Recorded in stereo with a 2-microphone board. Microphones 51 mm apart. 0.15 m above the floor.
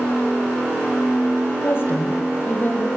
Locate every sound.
1.6 s a woman speaking: 45° left (ahead or behind), 5 m; by 2.9 s 40° left (ahead or behind), 6 m